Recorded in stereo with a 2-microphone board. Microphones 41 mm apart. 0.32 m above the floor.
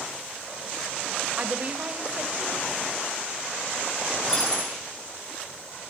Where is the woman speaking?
35° right (ahead or behind), 1.1 m.